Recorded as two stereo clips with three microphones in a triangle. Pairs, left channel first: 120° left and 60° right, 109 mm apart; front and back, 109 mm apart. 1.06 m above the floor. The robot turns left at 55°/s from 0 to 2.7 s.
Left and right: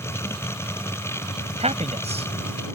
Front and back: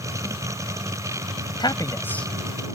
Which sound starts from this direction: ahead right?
A man speaking, at 1.6 s.